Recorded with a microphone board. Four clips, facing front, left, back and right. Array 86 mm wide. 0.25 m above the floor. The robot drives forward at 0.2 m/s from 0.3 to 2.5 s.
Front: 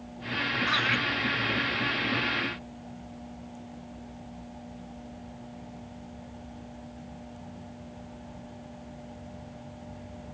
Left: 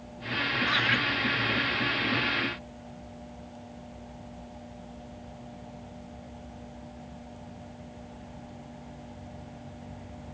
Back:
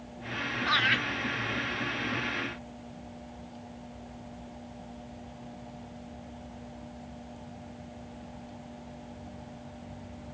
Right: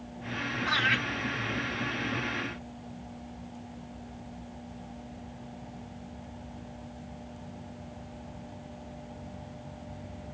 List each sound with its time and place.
0.7 s laughter: straight behind, 1.4 m